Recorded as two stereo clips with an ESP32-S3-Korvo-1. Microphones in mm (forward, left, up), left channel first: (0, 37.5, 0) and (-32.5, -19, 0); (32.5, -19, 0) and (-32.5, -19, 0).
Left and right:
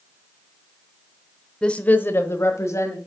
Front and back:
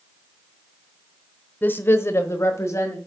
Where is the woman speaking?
5° right, 0.9 m; by 3.0 s 30° left, 1.9 m.